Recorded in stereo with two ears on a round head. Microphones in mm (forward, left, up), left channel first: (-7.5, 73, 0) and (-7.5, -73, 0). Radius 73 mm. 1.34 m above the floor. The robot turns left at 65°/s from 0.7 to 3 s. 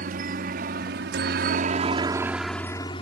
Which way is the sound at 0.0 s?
55° right (ahead or behind).